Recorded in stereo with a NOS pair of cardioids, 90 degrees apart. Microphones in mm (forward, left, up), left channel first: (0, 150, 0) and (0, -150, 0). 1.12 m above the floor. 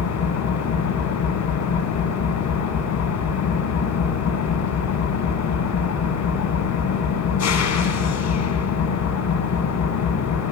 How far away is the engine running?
About 3 m.